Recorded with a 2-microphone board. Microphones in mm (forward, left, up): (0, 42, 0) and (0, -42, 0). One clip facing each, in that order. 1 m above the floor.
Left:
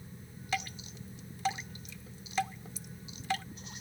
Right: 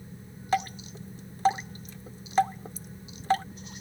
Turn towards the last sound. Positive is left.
turn(degrees=-40)  # may be behind; listen again after turning